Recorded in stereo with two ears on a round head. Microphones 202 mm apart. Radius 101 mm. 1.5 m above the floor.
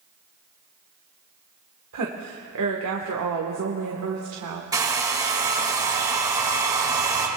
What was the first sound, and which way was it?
A woman speaking, 85° right.